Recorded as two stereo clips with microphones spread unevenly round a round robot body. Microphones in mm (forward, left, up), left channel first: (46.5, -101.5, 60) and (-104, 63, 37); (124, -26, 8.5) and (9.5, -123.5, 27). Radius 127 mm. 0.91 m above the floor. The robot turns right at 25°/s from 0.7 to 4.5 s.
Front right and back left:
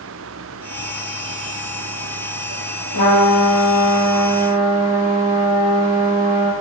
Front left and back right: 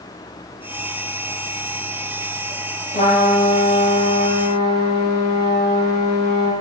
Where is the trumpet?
15° right, 4 m; by 6.5 s 20° left, 4 m.